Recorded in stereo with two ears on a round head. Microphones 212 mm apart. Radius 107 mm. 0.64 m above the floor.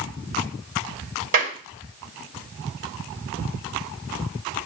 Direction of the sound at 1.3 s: 60° right (ahead or behind).